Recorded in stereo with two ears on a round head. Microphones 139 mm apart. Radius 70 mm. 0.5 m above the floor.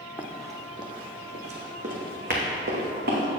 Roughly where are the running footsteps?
Centre.